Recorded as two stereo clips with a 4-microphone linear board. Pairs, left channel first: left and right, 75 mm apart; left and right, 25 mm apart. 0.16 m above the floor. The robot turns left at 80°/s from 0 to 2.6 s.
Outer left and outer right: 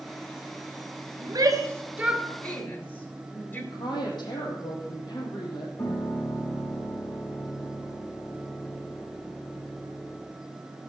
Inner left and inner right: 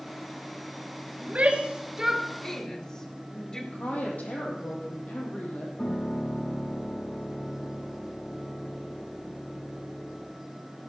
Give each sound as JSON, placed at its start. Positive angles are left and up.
{"t": 1.2, "sound": "a shout", "side_deg": -60, "distance_m": 3.0}
{"t": 3.7, "sound": "a woman speaking", "side_deg": 75, "distance_m": 6.0}
{"t": 5.8, "sound": "a piano", "side_deg": 50, "distance_m": 5.5}